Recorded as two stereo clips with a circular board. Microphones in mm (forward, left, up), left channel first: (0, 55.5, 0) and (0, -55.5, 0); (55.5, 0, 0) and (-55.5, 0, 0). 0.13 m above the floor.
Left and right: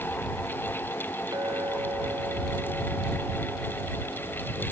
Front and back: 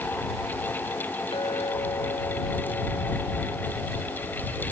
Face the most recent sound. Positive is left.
turn(degrees=-40)